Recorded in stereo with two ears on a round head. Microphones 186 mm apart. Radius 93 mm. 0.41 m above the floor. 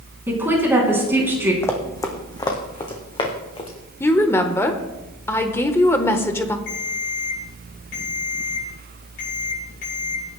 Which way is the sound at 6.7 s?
60° left (ahead or behind).